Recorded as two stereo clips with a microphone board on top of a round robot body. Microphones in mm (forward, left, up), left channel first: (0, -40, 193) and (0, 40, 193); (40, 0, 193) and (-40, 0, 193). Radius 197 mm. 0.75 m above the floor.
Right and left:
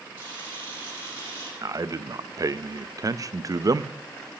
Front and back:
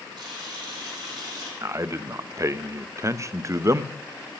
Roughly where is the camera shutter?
Behind left.